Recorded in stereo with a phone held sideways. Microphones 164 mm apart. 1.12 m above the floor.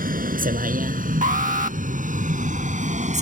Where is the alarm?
50° right (ahead or behind).